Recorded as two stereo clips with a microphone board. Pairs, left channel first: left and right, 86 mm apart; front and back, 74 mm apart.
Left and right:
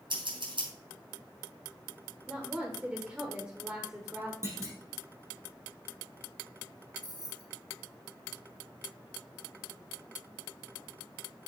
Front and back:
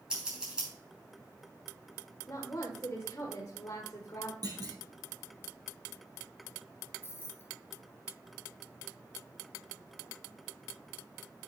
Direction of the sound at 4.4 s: 150° right.